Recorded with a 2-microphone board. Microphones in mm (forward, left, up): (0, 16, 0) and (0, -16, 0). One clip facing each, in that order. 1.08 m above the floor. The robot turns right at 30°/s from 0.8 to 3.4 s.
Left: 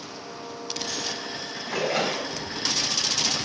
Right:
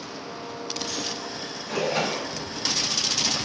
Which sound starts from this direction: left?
A splash, at 1.6 s.